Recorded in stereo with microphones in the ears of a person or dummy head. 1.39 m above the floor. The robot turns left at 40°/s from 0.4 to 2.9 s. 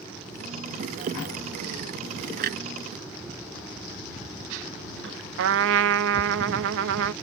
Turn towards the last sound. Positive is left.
turn(degrees=-65)  # may be behind; listen again after turning